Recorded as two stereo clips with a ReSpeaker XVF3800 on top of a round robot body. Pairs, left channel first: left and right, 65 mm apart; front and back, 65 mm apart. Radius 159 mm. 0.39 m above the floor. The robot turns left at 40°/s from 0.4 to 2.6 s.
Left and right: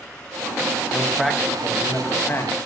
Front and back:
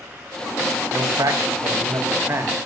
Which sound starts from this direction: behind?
A man speaking, at 0.9 s.